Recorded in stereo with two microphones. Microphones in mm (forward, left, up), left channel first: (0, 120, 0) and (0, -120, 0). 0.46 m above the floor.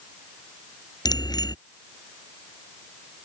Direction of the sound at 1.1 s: 15° left (ahead or behind).